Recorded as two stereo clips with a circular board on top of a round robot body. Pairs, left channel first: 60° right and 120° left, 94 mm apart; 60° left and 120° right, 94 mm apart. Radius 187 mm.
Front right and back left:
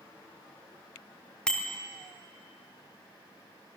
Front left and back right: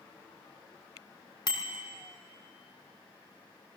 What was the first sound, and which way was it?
A bicycle bell, 20° left.